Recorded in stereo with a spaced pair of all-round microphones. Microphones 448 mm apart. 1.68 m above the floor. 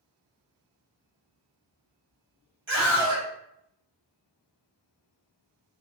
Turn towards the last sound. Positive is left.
turn(degrees=-85)